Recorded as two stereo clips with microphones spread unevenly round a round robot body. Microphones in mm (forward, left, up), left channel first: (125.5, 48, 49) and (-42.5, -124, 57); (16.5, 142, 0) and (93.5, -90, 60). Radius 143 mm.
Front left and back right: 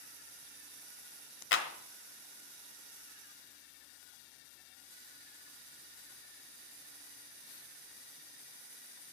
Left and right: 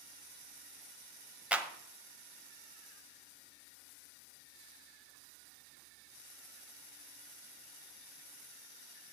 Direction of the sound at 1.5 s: 20° left.